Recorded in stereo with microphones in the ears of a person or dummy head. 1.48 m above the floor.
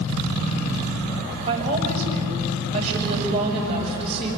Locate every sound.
1.5 s a woman speaking: 30° right (ahead or behind), 7 m